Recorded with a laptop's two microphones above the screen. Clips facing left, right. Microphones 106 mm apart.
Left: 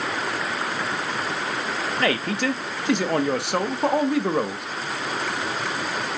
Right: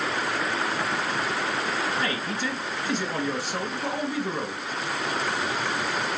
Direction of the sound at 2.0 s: 70° left (ahead or behind).